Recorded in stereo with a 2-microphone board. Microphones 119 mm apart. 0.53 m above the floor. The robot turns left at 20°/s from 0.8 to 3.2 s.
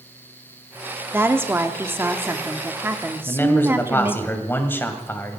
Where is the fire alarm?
No fire alarm in this recording.